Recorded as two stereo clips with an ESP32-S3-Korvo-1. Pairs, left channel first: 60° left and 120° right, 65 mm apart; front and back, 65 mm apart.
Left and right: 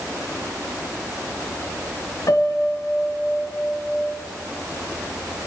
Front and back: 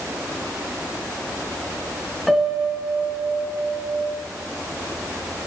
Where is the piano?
90° left, 3.5 m.